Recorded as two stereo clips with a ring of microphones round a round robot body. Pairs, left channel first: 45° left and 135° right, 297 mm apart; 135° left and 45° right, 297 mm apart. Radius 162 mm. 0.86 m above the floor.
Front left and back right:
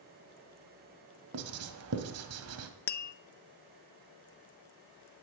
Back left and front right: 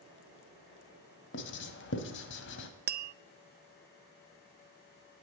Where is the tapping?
Straight ahead, 0.7 m.